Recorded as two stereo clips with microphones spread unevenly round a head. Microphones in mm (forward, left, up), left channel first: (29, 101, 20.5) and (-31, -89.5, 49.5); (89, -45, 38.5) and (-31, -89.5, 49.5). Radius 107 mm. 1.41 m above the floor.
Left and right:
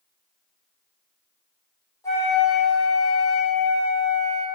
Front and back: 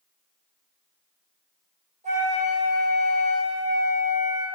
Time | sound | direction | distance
2.0 | a flute | 150° left | 4.5 m